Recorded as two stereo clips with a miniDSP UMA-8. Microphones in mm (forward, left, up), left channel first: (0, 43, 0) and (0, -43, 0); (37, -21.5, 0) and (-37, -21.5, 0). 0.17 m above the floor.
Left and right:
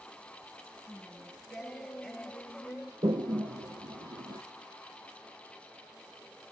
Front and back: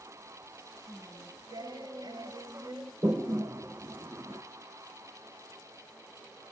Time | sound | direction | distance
0.9 | singing | 175° left | 1.3 m
3.0 | a toilet flushing | 125° right | 0.8 m